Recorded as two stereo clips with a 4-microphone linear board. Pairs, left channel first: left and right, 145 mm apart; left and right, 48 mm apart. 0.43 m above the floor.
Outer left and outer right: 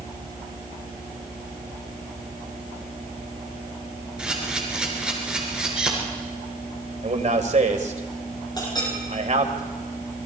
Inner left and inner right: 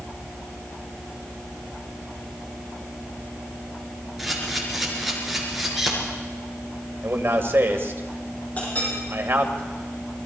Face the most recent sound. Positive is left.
turn(degrees=30)  # may be behind; listen again after turning